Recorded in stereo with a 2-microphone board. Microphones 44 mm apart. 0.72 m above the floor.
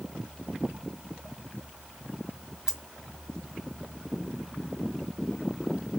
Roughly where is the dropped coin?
Centre.